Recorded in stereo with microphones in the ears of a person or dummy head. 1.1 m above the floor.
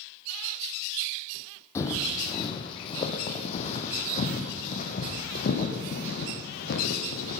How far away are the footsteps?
About 3 m.